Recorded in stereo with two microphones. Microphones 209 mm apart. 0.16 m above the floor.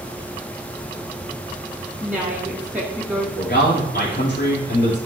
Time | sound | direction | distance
2.0 | a woman speaking | 10° right (ahead or behind) | 1.3 m
3.4 | a man speaking | 60° left (ahead or behind) | 4 m